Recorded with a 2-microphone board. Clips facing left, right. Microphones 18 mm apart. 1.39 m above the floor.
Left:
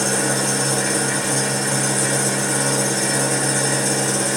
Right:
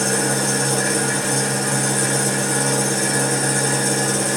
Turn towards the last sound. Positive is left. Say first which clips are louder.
# even
turn(degrees=5)  # may be behind; listen again after turning